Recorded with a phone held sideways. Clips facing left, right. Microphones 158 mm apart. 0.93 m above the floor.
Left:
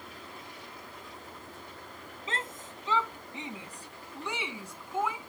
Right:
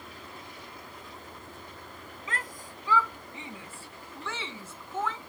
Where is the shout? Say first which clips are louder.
Left 1 dB; 25° left (ahead or behind); by 5.3 s 10° left (ahead or behind).